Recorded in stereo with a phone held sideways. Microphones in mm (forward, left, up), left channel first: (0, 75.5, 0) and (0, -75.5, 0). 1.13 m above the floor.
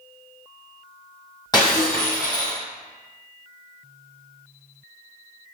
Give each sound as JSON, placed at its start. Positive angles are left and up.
{"t": 1.5, "sound": "breaking glass", "side_deg": 25, "distance_m": 2.0}